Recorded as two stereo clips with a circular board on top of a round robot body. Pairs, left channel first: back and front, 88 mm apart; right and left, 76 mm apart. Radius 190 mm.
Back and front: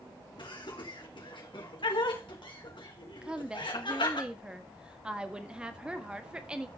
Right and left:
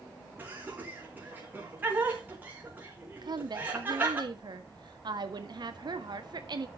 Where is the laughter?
155° left, 4 m.